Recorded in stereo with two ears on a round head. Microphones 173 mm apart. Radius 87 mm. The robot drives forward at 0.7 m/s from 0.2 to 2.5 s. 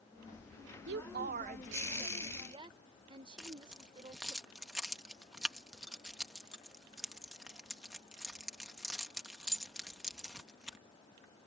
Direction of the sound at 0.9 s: 60° right (ahead or behind).